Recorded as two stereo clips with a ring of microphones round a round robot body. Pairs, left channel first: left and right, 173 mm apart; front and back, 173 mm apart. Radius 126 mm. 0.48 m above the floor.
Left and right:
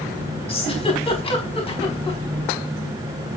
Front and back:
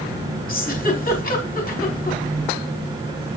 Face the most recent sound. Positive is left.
turn(degrees=35)